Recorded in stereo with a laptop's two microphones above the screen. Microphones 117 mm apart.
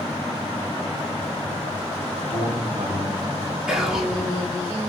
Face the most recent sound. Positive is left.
turn(degrees=-5)  # may be behind; listen again after turning